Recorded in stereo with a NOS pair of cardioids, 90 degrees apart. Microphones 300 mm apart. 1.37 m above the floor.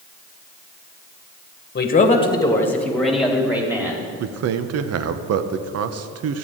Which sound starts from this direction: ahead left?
A man speaking, at 1.8 s.